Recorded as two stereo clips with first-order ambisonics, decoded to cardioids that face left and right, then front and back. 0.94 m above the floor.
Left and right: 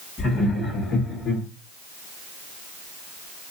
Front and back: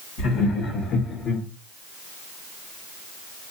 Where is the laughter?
20° left, 2 m; by 1.4 s 50° left, 2.0 m.